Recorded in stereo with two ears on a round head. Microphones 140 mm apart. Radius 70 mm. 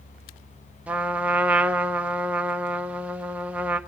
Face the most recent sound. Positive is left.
turn(degrees=-10)  # may be behind; listen again after turning